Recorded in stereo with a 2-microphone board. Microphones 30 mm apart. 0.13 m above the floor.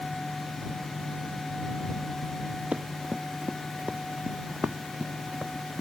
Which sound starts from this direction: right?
Running footsteps, at 2.7 s.